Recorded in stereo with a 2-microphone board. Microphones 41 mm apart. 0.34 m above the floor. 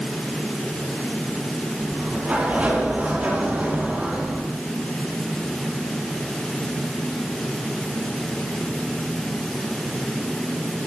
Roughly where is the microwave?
No microwave in this recording.